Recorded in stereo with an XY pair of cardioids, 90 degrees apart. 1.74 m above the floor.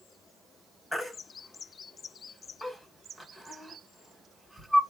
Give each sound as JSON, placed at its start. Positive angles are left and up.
{"t": 0.9, "sound": "a baby crying", "azimuth_deg": 25, "distance_m": 1.9}